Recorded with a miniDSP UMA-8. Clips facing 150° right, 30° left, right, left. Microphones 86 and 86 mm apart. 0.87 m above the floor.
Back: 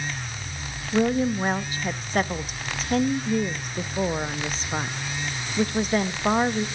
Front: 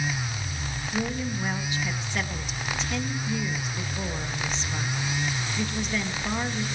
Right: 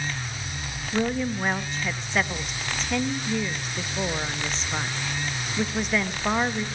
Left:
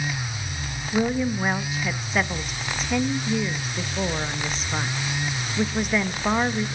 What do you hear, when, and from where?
0.9 s a woman speaking: 175° left, 0.8 m